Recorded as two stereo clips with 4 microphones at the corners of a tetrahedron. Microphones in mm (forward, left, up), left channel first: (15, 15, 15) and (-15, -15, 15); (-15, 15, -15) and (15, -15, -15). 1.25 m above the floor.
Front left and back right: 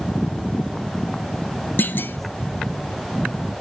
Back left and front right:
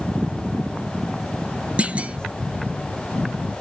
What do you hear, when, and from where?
1.8 s a clunk: 15° left, 0.6 m